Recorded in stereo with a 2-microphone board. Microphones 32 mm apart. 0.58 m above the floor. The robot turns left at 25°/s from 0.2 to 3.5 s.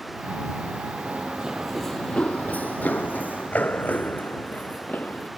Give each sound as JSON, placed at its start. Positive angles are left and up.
{"t": 1.1, "sound": "running footsteps", "side_deg": -45}